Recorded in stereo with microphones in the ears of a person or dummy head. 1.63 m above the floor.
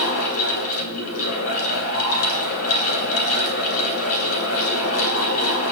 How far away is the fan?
About 2.5 m.